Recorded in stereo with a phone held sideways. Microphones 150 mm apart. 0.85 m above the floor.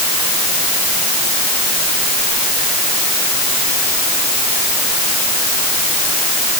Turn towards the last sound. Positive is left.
No sound to turn to.